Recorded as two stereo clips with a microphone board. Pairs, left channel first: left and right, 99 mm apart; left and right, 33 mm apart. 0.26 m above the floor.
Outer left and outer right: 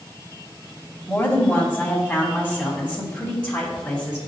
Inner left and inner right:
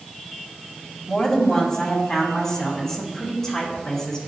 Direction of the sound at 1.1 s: 20° left (ahead or behind).